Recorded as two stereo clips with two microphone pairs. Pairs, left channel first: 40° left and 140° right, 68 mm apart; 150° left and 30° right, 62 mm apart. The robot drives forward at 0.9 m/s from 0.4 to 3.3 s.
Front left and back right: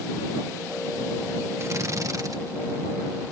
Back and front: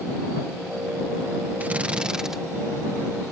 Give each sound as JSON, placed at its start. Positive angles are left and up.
{"t": 1.6, "sound": "a drill", "azimuth_deg": -95}